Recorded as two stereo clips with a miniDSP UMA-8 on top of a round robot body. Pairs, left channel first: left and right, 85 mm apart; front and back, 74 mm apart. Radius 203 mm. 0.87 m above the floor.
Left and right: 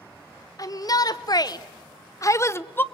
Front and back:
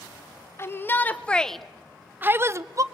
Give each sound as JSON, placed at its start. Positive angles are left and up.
{"t": 0.6, "sound": "a shout", "azimuth_deg": 50, "distance_m": 1.5}